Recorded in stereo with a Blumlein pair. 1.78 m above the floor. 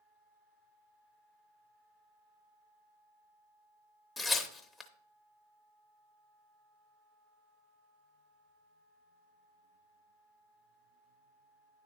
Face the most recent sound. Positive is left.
turn(degrees=15)